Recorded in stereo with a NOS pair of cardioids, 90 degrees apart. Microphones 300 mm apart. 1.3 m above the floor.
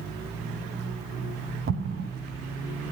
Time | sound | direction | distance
1.7 | an explosion | 45° right | 1.1 m